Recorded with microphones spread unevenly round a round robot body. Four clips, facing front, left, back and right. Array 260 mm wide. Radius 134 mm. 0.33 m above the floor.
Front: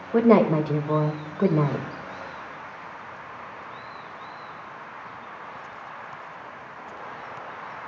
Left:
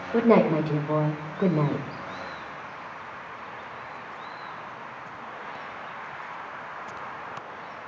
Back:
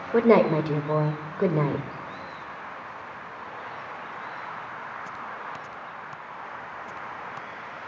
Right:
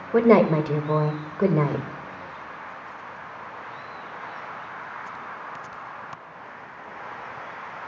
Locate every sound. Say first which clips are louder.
0.1 s a woman speaking: right 3 dB, front 1 dB; 100° right, 1.4 m